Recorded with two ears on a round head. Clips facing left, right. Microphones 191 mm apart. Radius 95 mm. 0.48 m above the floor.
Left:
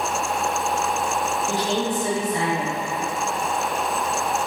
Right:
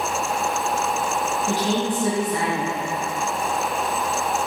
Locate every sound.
1.5 s a woman speaking: 60° right (ahead or behind), 4 m